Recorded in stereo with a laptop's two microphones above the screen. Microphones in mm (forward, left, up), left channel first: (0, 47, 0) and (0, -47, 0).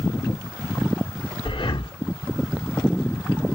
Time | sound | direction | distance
1.4 | breathing | 60° left (ahead or behind) | 0.9 m